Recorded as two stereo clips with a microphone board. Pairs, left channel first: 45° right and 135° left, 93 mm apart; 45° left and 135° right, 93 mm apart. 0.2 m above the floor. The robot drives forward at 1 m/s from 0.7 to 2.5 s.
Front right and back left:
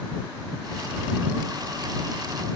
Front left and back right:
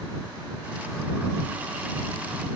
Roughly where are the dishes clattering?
I don't hear dishes clattering.